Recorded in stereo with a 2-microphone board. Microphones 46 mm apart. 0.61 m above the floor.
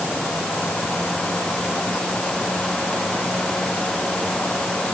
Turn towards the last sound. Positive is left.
No sound to turn to.